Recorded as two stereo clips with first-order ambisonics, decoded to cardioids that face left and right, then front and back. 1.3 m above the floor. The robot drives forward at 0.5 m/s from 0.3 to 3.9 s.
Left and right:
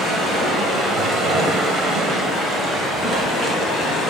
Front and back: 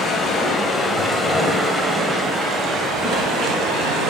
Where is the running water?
45° right, 1.3 m; by 4.1 s 155° right, 1.7 m.